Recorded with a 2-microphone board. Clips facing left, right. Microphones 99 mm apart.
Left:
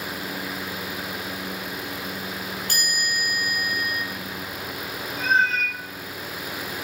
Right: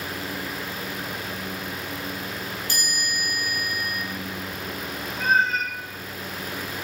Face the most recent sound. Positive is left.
turn(degrees=-20)  # may be behind; listen again after turning